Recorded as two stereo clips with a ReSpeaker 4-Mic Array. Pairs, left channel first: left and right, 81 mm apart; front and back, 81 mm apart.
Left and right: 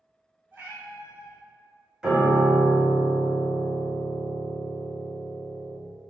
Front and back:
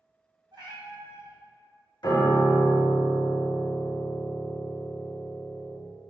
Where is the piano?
10° right, 0.7 m.